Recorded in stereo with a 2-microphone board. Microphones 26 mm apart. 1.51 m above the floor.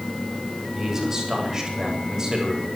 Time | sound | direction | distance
0.8 | a man speaking | 20° right (ahead or behind) | 8 m